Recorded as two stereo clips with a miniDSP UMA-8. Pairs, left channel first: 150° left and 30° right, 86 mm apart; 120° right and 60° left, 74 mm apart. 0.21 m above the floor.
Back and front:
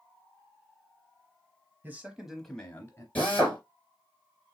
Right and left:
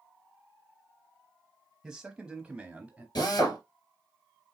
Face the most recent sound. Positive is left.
turn(degrees=-135)